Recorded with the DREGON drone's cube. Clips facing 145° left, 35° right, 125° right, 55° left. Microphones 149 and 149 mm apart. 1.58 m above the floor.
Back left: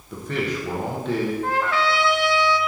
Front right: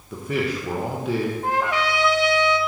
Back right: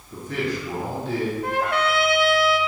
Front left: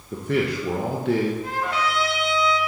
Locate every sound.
0.1 s a man speaking: 45° left, 1.1 m
1.4 s a trumpet: 105° right, 0.7 m